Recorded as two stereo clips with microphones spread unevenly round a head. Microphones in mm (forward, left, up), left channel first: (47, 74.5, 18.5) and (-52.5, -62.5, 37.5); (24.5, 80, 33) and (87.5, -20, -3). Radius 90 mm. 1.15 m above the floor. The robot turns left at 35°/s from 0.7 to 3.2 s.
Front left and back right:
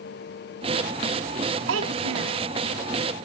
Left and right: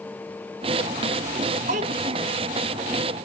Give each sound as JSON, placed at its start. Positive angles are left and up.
{"t": 1.7, "sound": "a child speaking", "azimuth_deg": -105, "distance_m": 0.5}